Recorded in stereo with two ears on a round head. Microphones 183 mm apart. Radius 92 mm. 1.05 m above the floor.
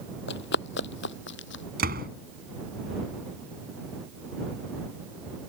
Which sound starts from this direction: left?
Running footsteps, at 0.3 s.